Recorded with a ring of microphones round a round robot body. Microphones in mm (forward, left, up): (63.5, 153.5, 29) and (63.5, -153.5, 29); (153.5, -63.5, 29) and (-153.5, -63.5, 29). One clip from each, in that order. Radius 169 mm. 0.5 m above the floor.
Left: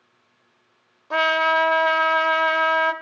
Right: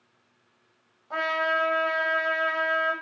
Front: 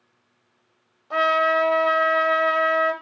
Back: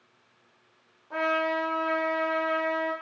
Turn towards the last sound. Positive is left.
turn(degrees=55)